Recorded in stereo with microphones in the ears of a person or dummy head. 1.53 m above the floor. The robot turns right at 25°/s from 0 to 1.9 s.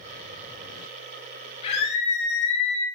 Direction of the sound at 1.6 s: 40° left (ahead or behind).